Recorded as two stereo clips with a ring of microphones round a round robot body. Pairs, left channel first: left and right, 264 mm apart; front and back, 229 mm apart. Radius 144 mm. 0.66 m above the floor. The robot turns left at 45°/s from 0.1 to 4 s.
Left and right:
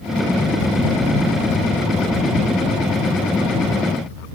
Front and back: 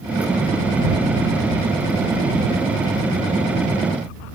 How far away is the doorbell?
No doorbell in this recording.